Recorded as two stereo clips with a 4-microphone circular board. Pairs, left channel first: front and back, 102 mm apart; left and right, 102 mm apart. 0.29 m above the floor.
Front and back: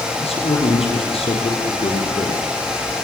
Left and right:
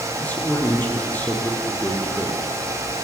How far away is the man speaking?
About 7.5 m.